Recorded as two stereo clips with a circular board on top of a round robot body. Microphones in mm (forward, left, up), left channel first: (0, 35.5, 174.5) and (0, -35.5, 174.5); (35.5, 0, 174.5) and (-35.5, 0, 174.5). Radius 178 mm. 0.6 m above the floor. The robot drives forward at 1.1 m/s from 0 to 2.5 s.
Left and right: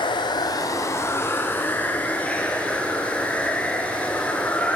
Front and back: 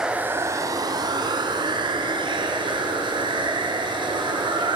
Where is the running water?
95° left, 0.9 m; by 4.8 s 165° left, 3 m.